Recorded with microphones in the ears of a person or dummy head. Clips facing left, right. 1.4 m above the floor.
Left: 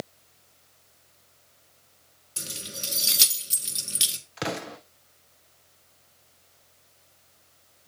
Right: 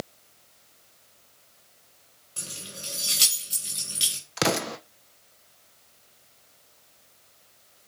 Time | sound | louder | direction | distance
2.4 | keys jangling | left 2 dB | 25° left (ahead or behind) | 1.5 m
4.4 | an explosion | right 6 dB | 65° right (ahead or behind) | 0.6 m